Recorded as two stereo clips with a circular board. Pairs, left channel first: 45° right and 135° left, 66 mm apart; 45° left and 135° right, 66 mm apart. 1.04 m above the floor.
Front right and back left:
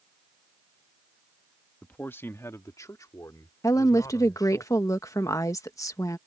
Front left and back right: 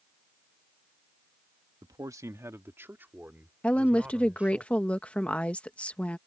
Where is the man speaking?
115° right; by 4.6 s 65° right.